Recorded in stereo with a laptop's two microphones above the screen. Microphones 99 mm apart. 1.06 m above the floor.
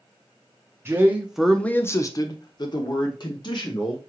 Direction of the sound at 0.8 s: 25° right (ahead or behind).